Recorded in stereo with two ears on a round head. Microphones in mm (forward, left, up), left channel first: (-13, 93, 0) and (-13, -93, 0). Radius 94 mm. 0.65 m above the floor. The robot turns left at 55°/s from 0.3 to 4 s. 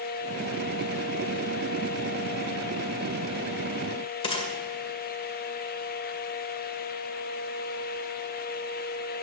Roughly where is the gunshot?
Left.